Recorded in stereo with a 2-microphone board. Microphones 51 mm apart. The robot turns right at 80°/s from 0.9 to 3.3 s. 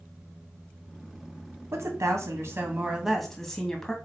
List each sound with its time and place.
1.7 s a woman speaking: 115° right, 2 m; by 3.9 s 10° left, 2 m